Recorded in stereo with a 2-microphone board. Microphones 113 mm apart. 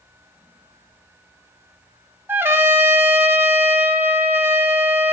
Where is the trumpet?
20° right (ahead or behind), 1.0 m.